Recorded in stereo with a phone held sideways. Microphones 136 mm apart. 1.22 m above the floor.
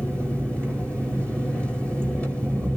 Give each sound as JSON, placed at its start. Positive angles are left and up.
{"t": 0.0, "sound": "an engine running", "side_deg": 10, "distance_m": 5.0}